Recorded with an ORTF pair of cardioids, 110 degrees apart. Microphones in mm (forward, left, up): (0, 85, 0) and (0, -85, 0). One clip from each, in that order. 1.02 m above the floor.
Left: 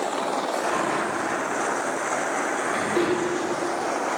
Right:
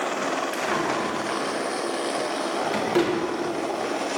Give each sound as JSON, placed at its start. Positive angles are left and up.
{"t": 0.5, "sound": "a drawer", "azimuth_deg": -60, "distance_m": 2.5}